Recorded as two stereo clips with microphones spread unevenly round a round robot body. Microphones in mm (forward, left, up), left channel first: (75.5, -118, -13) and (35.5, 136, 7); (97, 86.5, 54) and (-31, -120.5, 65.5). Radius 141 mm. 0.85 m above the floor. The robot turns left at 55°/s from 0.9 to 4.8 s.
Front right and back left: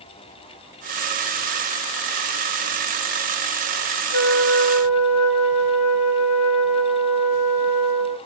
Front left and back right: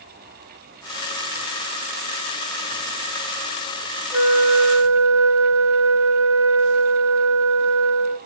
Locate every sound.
4.1 s a flute: 60° right, 1.1 m; by 8.2 s 95° right, 1.1 m